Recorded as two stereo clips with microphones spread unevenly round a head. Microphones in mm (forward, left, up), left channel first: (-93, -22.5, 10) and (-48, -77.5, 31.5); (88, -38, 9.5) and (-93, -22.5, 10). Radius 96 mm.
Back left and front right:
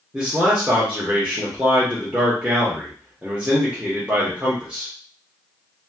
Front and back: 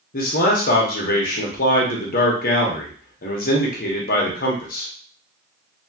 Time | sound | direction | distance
0.1 | a man speaking | 35° left | 0.9 m